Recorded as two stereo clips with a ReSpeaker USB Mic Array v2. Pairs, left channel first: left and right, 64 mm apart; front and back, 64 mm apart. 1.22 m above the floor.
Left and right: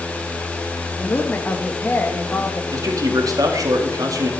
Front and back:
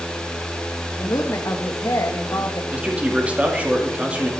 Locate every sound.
1.0 s a woman speaking: 35° left, 1.6 m
2.7 s a man speaking: 110° right, 2.5 m